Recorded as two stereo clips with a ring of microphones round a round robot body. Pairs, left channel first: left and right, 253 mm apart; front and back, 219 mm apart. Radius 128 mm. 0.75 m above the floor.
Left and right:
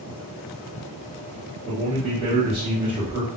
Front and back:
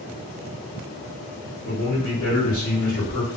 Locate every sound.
1.6 s a man speaking: 60° right, 1.4 m